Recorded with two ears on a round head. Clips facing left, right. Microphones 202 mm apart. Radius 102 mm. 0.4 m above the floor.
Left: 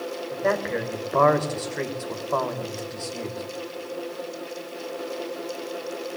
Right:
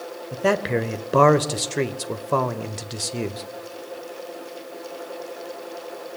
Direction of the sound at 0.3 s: 45° right (ahead or behind).